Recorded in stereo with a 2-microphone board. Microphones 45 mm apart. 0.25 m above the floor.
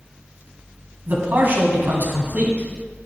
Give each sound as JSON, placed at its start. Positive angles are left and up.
{"t": 1.1, "sound": "a man speaking", "side_deg": -40, "distance_m": 1.7}